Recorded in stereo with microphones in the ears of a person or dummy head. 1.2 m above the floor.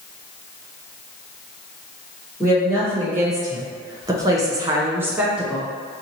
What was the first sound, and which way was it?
A woman speaking, 15° right (ahead or behind).